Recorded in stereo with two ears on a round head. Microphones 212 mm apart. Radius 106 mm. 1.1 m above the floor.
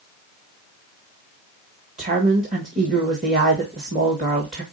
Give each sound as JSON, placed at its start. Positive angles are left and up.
{"t": 2.0, "sound": "a woman speaking", "side_deg": -30, "distance_m": 1.7}